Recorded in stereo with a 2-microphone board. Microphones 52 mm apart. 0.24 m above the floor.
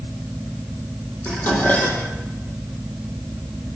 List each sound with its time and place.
1.2 s dishes clattering: 30° left (ahead or behind), 5.5 m